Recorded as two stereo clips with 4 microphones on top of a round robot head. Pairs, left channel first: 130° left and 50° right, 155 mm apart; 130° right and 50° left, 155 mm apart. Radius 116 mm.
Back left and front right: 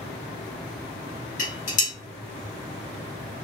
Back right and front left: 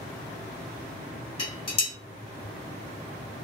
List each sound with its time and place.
1.4 s dishes clattering: 170° left, 1.4 m